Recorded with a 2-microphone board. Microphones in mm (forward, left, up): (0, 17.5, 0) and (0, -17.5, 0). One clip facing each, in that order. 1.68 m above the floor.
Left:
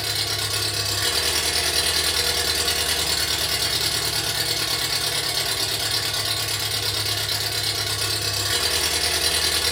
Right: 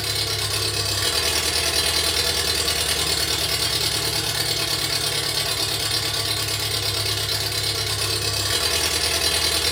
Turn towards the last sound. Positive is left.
turn(degrees=5)  # may be behind; listen again after turning